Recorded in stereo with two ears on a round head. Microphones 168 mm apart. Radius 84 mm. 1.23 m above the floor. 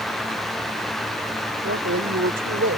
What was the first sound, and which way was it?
A woman speaking, 60° right (ahead or behind).